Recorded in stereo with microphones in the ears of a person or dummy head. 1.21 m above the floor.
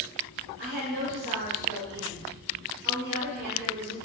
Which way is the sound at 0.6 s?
65° right (ahead or behind).